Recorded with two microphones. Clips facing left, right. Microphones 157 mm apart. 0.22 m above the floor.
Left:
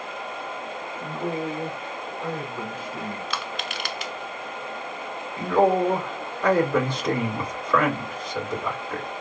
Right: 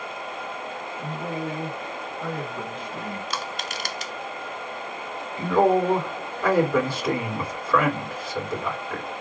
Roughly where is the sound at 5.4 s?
Centre.